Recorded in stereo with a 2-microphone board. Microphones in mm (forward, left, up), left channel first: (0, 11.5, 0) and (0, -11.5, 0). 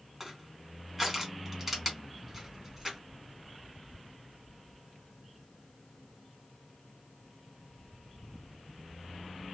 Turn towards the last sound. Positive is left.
turn(degrees=-10)  # may be behind; listen again after turning